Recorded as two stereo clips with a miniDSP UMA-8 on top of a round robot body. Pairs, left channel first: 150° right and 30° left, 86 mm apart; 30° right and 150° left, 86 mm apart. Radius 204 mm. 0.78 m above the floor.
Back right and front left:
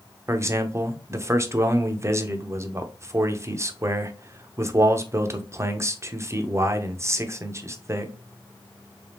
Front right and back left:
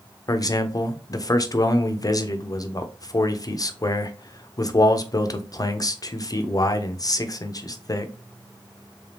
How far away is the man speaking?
About 0.9 m.